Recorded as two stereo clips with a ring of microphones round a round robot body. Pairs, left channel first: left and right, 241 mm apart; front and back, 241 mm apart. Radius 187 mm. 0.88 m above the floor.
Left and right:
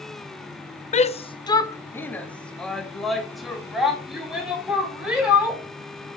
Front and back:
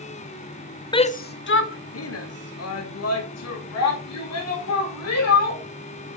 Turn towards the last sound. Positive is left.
turn(degrees=-5)